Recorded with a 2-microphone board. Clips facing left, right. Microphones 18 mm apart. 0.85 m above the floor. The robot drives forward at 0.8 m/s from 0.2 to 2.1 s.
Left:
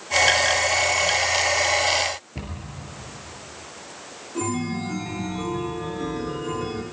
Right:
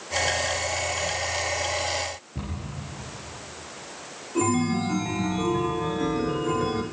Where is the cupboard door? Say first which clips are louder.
Even; 40° left (ahead or behind), 5 m.